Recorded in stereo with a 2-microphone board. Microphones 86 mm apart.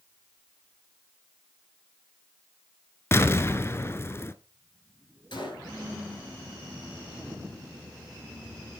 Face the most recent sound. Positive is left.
turn(degrees=70)  # may be behind; listen again after turning